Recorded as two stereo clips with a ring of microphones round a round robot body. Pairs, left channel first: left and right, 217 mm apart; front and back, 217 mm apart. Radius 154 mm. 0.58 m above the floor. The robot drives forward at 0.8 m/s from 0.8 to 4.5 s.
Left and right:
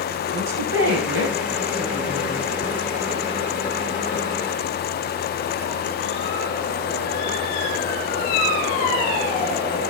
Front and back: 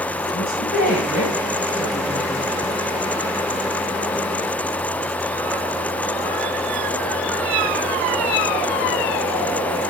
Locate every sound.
0.3 s a woman speaking: 65° right, 6 m; by 2.5 s 80° right, 5.5 m